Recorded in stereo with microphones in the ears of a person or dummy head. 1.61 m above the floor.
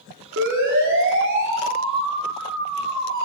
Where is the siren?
65° right (ahead or behind), 5.5 m; by 3.2 s 70° right (ahead or behind), 7 m.